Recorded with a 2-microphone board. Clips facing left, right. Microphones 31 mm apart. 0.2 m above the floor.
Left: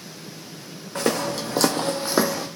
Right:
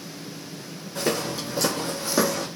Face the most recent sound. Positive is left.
turn(degrees=10)  # may be behind; listen again after turning